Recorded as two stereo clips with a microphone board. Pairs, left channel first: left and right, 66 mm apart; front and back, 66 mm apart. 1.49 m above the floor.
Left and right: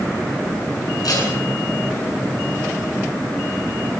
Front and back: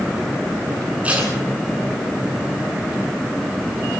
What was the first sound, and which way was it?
Tape being pulled, 110° left.